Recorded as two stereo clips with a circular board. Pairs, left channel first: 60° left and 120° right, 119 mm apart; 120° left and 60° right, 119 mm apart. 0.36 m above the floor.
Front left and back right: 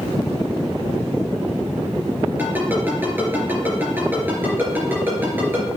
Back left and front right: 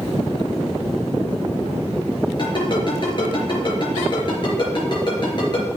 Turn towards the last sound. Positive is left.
turn(degrees=165)